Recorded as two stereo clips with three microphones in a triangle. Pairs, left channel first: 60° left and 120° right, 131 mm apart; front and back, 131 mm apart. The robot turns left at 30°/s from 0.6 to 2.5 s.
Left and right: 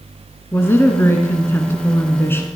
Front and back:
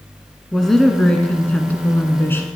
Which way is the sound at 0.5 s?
85° left.